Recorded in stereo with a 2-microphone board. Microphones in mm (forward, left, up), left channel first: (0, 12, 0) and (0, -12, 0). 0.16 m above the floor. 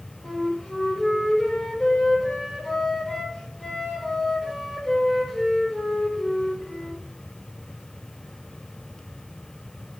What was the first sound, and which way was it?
A flute, 15° left (ahead or behind).